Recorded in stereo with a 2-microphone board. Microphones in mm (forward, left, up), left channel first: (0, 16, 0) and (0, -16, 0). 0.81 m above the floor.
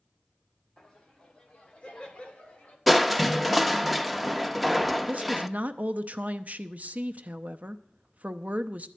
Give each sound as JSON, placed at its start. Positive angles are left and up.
{"t": 0.8, "sound": "laughter", "side_deg": 20, "distance_m": 2.5}
{"t": 2.9, "sound": "crushing", "side_deg": -5, "distance_m": 0.5}
{"t": 5.1, "sound": "a woman speaking", "side_deg": -50, "distance_m": 0.7}